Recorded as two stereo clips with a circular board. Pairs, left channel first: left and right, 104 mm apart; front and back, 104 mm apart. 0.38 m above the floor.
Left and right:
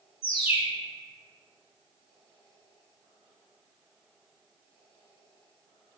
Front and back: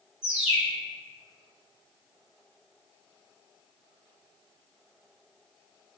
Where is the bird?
95° left, 1.1 m.